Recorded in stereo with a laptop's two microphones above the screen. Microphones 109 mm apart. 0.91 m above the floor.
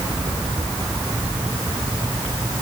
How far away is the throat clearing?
No throat clearing in this recording.